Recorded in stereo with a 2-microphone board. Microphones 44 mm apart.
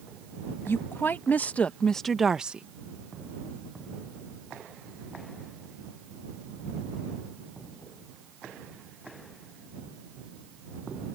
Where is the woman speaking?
55° left (ahead or behind); by 2.6 s 30° right (ahead or behind).